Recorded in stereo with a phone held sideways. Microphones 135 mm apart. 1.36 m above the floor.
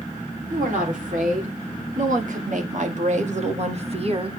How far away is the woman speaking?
About 3.5 m.